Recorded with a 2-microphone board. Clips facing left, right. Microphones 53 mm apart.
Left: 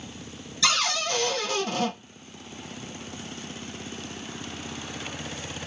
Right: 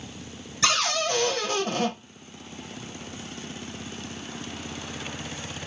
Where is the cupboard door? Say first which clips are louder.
Right 1 dB; 40° right (ahead or behind), 1.6 m.